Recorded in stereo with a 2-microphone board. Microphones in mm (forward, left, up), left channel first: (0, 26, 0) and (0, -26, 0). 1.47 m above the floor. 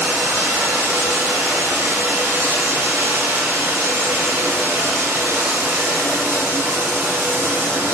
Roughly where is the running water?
Right.